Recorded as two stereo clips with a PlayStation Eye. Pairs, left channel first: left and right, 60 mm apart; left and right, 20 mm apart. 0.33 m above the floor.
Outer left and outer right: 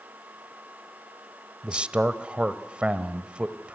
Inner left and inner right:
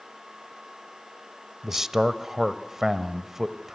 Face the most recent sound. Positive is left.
turn(degrees=-20)  # may be behind; listen again after turning